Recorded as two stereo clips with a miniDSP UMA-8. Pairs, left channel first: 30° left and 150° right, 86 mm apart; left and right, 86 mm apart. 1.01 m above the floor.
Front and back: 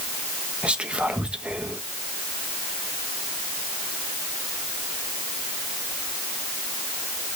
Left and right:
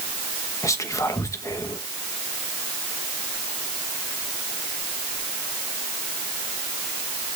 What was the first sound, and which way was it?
Whispering, 135° left.